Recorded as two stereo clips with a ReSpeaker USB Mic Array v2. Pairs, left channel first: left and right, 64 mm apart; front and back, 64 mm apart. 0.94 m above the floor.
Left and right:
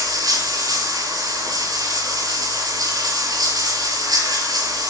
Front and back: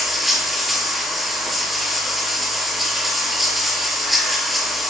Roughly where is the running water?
Right.